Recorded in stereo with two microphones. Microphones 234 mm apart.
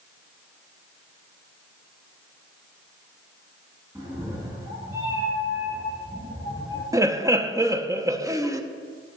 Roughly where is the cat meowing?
Centre.